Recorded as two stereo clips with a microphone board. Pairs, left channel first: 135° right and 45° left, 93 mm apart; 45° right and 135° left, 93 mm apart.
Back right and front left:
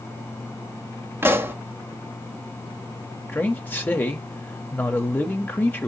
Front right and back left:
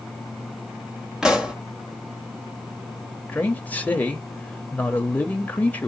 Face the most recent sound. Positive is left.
turn(degrees=-95)